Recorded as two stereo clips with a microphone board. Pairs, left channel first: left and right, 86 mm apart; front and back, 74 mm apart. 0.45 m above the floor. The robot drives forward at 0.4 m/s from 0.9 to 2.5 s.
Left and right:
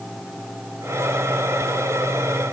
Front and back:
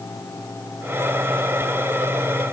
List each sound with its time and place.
Only background noise.